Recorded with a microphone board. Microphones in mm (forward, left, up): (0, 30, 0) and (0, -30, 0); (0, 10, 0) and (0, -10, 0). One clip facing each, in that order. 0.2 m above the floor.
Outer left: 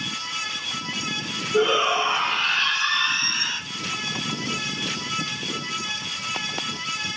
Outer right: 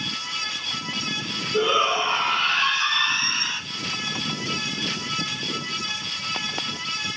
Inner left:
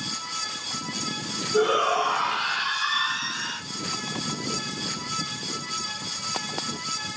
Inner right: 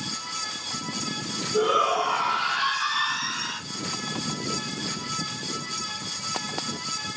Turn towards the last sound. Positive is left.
turn(degrees=-25)  # may be behind; listen again after turning